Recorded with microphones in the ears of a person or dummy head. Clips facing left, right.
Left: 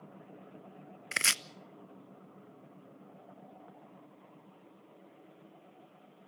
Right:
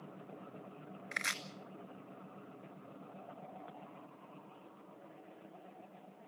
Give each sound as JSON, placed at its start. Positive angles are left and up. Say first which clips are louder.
{"t": 1.1, "sound": "chopping", "louder": "left 6 dB", "side_deg": 45, "distance_m": 0.6}